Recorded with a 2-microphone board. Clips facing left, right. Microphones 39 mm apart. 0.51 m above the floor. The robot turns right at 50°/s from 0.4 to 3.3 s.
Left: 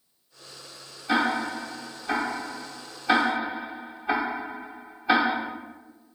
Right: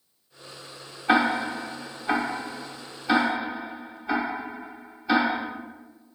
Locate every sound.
1.1 s ticking: 45° right (ahead or behind), 0.9 m; by 5.4 s 15° left (ahead or behind), 0.9 m